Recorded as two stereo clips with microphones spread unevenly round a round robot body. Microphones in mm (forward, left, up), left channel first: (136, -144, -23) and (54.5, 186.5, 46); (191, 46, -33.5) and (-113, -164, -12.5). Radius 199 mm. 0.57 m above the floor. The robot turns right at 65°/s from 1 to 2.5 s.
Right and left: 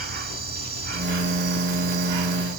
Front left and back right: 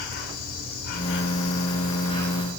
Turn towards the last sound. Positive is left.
turn(degrees=135)